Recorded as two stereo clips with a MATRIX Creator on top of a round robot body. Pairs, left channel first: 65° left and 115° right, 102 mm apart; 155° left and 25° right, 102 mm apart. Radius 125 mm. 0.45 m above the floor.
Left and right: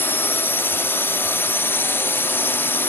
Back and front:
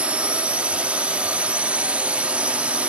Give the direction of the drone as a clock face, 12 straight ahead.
11 o'clock.